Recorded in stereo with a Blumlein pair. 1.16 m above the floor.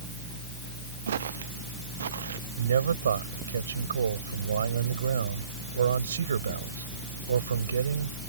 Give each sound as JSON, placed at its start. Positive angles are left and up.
{"t": 1.1, "sound": "footsteps", "azimuth_deg": -65}
{"t": 2.6, "sound": "a man speaking", "azimuth_deg": -70}